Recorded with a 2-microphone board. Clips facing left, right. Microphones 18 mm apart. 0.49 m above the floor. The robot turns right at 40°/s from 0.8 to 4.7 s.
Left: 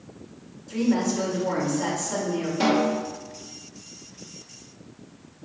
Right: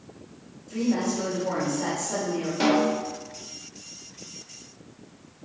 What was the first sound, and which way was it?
A woman speaking, 135° left.